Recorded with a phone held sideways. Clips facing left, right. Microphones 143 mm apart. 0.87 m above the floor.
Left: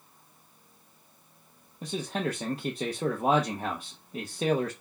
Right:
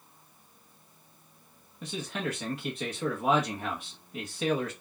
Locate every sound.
1.8 s a man speaking: 35° left (ahead or behind), 0.9 m